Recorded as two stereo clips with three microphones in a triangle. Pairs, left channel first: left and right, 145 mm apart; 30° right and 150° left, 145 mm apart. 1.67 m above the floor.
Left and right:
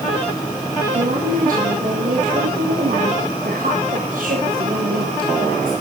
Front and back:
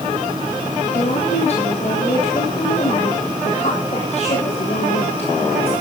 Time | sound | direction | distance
0.8 | a woman speaking | 70° right | 7.5 m